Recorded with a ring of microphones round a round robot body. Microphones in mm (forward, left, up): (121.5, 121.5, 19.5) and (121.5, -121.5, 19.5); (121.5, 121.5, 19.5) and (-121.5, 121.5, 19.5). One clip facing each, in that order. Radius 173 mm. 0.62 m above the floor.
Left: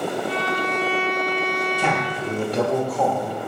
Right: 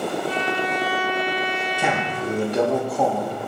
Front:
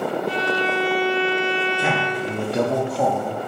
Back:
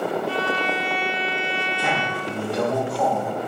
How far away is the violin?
About 0.6 m.